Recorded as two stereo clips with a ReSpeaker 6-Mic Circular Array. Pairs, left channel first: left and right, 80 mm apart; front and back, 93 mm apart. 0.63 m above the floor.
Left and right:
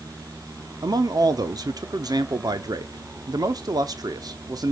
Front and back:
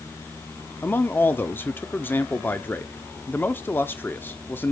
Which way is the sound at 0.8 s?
65° right.